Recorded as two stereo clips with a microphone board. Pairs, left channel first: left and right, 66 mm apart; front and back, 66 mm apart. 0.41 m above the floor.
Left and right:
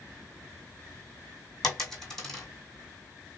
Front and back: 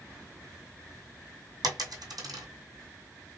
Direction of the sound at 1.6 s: 175° left.